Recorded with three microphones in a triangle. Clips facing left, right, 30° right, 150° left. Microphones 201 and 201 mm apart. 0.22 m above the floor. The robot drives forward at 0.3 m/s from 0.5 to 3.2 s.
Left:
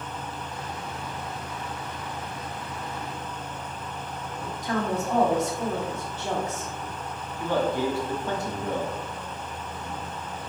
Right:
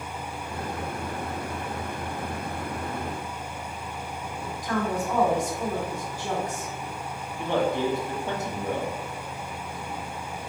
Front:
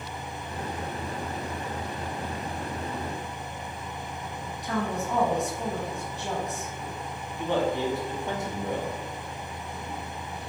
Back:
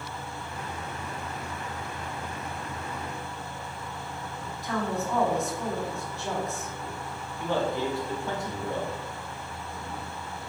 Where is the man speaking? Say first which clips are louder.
Even, front 2 dB; 60° right, 1.2 m.